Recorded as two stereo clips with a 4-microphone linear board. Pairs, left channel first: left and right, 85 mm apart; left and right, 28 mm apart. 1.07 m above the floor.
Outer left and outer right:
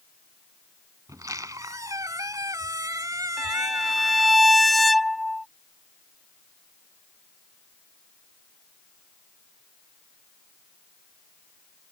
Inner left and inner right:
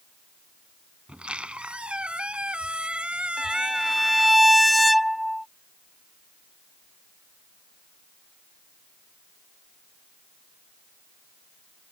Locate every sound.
1.1 s a squeak: 45° right (ahead or behind)
3.4 s a violin: centre (ahead or behind)